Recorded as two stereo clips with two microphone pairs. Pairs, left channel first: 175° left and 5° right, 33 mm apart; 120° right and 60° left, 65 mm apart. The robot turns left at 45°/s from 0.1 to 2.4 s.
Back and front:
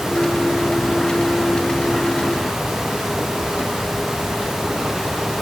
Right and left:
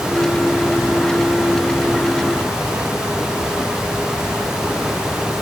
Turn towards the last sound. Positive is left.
No sound to turn to.